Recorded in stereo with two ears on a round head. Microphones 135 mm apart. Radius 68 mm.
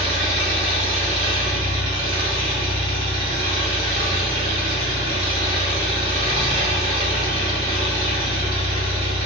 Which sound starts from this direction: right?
An engine running, at 0.0 s.